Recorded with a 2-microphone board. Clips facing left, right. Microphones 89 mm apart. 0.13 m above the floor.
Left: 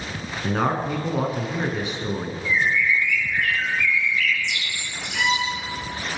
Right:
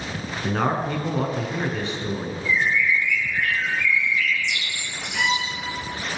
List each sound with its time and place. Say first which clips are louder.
0.4 s a man speaking: even; 5° left (ahead or behind), 1.4 m; by 2.4 s 15° left (ahead or behind), 1.4 m
2.5 s a bird: even; 65° left (ahead or behind), 1.6 m
5.1 s a violin: left 1 dB; 10° right (ahead or behind), 1.8 m